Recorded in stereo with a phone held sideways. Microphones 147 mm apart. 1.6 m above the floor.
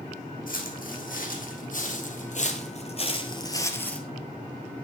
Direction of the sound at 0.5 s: 70° left (ahead or behind).